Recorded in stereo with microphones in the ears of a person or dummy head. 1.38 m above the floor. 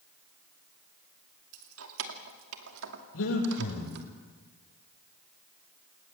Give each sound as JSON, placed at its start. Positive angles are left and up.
{"t": 1.5, "sound": "keys jangling", "side_deg": -85, "distance_m": 2.5}
{"t": 3.1, "sound": "breathing", "side_deg": 85, "distance_m": 9.5}